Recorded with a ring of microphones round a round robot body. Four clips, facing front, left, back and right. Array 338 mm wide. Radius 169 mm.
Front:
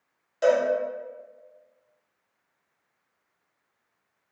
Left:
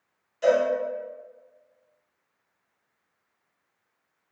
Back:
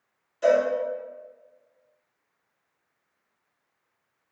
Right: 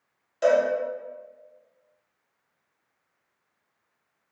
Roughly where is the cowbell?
Ahead right.